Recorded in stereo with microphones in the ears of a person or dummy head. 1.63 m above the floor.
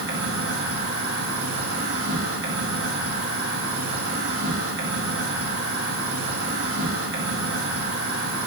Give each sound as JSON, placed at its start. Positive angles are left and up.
{"t": 0.0, "sound": "an insect", "side_deg": -70, "distance_m": 1.9}